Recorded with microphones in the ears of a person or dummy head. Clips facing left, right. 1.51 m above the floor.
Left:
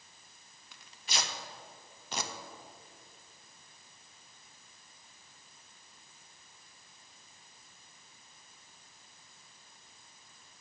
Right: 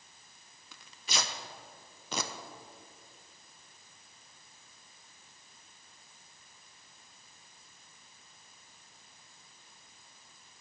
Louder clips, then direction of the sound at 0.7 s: Right 2 dB; 70° right (ahead or behind).